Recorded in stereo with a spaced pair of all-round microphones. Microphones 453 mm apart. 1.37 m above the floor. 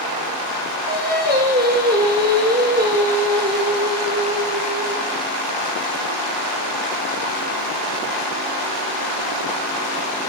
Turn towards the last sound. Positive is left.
turn(degrees=-20)  # may be behind; listen again after turning